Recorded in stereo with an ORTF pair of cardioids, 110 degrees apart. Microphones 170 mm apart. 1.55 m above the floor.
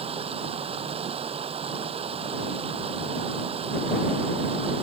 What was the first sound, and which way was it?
Running water, 35° right.